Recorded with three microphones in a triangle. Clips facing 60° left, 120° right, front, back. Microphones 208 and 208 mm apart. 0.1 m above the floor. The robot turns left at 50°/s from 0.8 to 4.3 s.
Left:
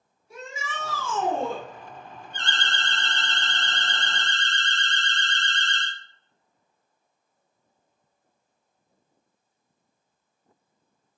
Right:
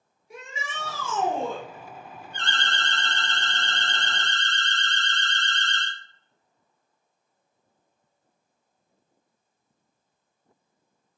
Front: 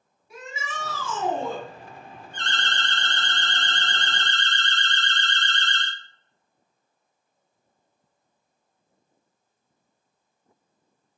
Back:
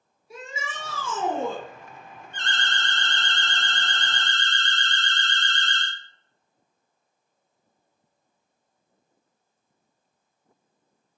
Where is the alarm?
85° right, 1.8 m; by 5.9 s 175° left, 1.8 m.